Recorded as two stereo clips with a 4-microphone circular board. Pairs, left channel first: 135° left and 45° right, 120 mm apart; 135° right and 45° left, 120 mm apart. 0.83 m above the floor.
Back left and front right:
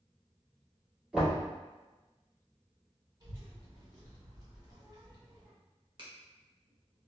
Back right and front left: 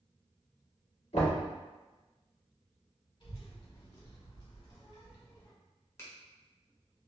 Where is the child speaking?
100° right, 1.7 m.